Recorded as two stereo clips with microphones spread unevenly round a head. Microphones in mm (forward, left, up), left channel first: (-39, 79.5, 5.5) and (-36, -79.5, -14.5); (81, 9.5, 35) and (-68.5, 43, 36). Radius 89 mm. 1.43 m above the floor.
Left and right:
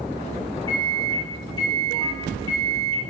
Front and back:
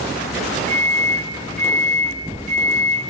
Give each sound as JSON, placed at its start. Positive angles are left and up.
{"t": 0.7, "sound": "a microwave", "azimuth_deg": 140, "distance_m": 0.5}